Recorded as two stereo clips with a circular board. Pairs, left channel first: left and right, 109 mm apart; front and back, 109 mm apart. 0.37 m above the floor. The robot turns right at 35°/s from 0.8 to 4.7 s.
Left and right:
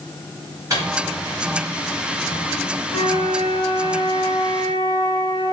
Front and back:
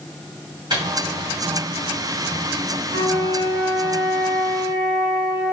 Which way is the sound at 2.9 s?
170° right.